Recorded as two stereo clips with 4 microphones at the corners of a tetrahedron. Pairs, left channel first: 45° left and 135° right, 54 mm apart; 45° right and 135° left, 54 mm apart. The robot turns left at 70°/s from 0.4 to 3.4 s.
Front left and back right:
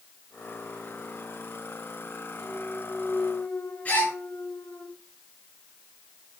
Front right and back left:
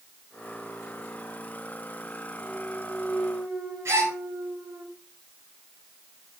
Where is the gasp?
105° left, 4 m.